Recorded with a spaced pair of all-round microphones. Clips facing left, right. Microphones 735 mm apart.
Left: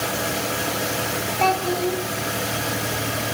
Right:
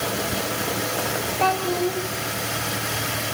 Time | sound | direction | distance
1.4 | a child speaking | centre (ahead or behind) | 3 m